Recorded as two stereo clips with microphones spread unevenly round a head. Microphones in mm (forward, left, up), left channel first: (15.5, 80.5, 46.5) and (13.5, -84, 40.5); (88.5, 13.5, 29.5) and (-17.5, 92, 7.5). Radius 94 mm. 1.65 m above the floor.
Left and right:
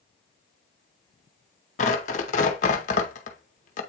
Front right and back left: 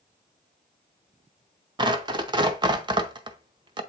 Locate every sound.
1.8 s tearing paper: 90° left, 0.7 m